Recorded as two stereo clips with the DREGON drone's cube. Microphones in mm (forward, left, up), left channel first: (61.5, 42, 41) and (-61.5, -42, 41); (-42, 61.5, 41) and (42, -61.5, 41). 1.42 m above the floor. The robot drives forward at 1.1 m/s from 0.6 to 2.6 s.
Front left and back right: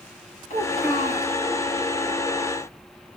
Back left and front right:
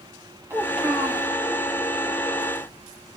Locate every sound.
0.5 s a child speaking: 15° left, 4 m; by 1.3 s 20° left, 3.5 m